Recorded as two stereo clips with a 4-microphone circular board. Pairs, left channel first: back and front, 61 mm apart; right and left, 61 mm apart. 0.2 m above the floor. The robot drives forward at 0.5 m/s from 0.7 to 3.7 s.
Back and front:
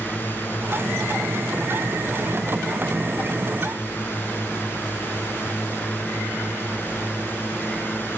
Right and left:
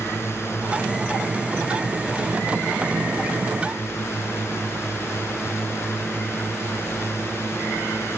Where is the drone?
130° right.